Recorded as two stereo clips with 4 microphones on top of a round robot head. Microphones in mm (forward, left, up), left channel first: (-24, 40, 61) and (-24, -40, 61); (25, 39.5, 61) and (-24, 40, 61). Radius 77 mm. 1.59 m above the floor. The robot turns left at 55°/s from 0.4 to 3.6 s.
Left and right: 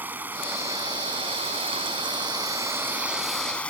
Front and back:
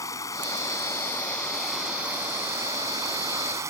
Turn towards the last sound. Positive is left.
turn(degrees=165)